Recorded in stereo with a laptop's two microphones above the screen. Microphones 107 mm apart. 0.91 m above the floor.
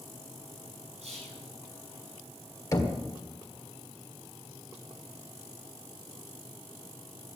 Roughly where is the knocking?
Left.